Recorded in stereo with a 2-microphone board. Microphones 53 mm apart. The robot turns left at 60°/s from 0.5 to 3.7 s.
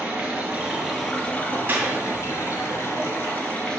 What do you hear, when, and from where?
0.0 s running water: 150° right, 2 m; by 3.8 s 15° left, 2 m
1.7 s a clap: 40° right (ahead or behind), 2.5 m; by 1.9 s 25° right (ahead or behind), 2.5 m